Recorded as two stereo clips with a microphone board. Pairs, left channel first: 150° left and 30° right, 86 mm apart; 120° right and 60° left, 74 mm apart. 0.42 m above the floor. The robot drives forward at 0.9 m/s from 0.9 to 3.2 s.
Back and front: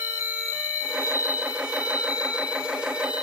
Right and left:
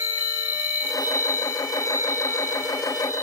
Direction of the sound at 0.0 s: 160° right.